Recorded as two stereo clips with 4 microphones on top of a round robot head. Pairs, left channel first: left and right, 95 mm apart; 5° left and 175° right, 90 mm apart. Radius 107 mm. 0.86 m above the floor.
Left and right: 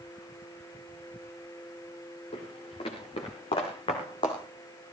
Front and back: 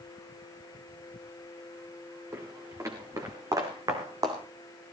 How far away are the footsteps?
About 4.5 m.